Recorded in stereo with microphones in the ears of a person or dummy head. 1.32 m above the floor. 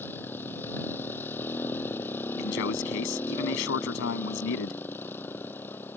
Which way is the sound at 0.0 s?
10° left (ahead or behind).